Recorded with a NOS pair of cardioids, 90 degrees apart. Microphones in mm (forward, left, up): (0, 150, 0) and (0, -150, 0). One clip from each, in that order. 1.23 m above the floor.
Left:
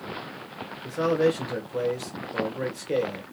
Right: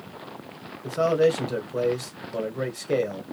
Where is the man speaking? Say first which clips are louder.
Right 2 dB; 25° right, 1.3 m.